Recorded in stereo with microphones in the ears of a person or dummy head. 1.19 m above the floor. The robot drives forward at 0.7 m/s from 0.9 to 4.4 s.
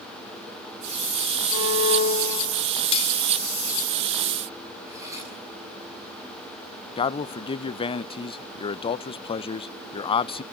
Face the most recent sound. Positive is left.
turn(degrees=30)  # may be behind; listen again after turning